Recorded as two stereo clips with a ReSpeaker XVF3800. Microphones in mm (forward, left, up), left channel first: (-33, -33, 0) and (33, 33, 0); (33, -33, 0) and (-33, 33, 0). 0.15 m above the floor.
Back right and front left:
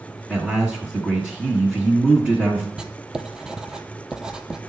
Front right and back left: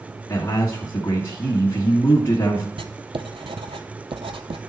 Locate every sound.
0.3 s a man speaking: 25° right, 1.4 m
2.8 s writing: 125° left, 0.6 m